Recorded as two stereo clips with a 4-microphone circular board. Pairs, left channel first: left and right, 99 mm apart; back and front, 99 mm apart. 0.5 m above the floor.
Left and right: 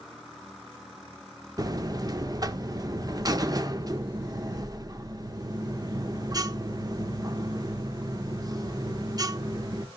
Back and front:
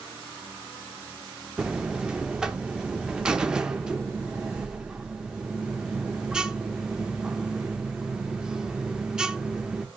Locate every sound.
1.6 s a buzzer: 80° right, 0.7 m